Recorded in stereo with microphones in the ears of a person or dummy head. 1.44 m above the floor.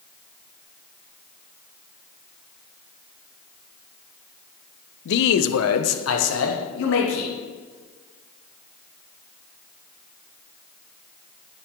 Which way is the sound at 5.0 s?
60° left (ahead or behind).